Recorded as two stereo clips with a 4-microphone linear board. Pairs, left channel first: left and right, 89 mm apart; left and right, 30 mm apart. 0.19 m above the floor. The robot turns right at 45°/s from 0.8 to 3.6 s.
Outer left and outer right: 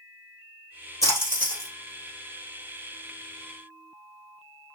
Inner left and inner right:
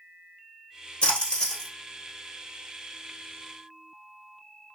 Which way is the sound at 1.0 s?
145° left.